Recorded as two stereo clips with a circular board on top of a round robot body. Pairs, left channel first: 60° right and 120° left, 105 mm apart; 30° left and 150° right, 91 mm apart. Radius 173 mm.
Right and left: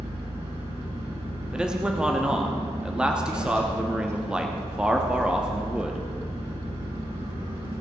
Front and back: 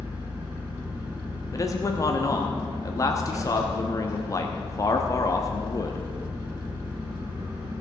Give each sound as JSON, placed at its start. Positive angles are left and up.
{"t": 0.0, "sound": "an engine running", "azimuth_deg": 140, "distance_m": 5.5}
{"t": 1.5, "sound": "a man speaking", "azimuth_deg": 45, "distance_m": 1.3}